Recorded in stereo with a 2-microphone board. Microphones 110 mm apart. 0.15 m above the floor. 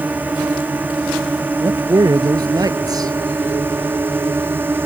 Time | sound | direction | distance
0.0 | a drone | 15° right (ahead or behind) | ?
1.6 | a man speaking | 35° right (ahead or behind) | ?